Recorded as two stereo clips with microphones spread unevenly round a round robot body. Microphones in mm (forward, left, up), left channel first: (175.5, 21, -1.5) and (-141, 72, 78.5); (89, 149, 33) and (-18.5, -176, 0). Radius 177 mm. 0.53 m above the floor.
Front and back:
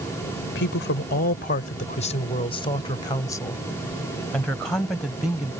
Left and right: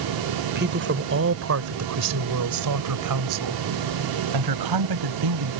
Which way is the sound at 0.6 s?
55° right.